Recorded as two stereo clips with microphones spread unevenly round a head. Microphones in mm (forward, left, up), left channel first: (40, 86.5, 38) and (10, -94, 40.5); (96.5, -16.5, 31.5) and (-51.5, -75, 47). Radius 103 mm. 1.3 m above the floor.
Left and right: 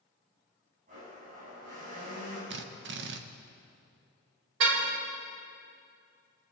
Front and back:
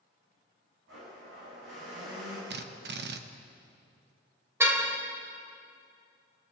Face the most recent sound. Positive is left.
turn(degrees=-85)